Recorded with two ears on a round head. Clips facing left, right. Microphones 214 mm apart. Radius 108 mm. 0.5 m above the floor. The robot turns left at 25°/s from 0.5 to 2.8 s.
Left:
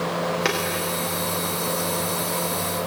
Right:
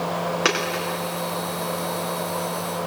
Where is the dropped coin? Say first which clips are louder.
Right 1 dB; 10° right (ahead or behind), 7.5 m; by 0.8 s centre (ahead or behind), 7.5 m.